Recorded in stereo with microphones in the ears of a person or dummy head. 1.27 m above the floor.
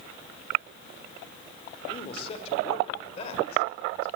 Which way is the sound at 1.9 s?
35° left (ahead or behind).